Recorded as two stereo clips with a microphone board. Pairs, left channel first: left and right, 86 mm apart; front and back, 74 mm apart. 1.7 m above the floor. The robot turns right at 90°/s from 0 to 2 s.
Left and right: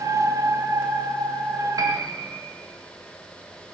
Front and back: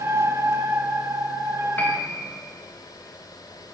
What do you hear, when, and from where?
1.8 s a piano: 55° right, 1.3 m; by 2.2 s 35° right, 1.3 m